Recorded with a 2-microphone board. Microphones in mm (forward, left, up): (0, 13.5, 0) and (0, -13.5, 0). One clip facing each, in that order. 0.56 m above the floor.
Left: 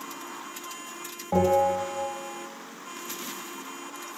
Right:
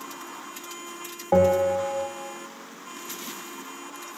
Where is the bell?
40° right (ahead or behind), 0.7 m.